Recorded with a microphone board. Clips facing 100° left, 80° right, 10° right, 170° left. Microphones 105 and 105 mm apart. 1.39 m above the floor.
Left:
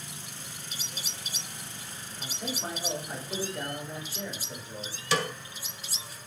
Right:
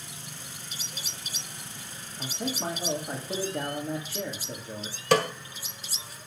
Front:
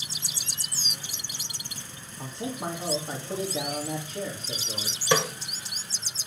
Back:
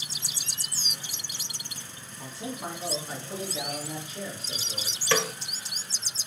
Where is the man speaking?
70° right, 3 m.